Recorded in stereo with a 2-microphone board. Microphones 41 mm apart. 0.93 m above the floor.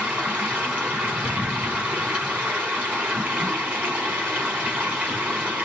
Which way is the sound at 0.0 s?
40° right (ahead or behind).